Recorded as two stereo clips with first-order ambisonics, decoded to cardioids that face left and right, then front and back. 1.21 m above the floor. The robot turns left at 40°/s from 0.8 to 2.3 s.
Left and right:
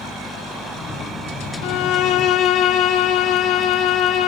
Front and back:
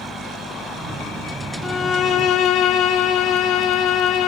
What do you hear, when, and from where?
1.6 s a violin: 70° left, 0.6 m; by 4.3 s 40° left, 0.6 m